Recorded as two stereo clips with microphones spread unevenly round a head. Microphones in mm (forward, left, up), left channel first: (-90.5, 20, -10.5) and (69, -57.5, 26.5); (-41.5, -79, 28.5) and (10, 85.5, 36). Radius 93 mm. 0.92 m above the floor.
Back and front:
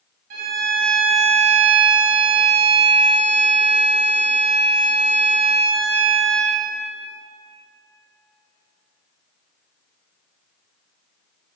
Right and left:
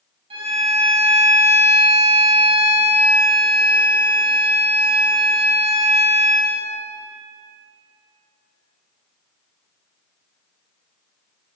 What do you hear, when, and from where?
0.3 s a violin: 10° left, 2 m